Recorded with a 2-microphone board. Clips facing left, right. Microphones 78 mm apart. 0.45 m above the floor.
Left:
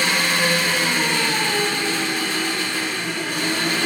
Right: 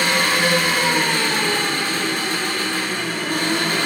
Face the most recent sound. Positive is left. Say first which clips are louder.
# right 2 dB
turn(degrees=-55)  # may be behind; listen again after turning